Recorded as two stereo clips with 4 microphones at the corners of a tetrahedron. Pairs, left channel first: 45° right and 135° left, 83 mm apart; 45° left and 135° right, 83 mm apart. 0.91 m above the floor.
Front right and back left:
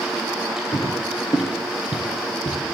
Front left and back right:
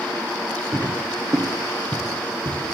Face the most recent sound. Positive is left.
turn(degrees=-95)